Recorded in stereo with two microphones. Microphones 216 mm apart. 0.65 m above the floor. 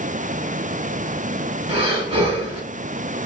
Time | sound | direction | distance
1.7 | breathing | 25° right (ahead or behind) | 1.0 m